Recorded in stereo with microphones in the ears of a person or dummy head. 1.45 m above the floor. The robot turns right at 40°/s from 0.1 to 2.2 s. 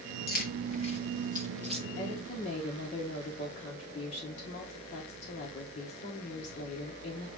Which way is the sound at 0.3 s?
50° left (ahead or behind).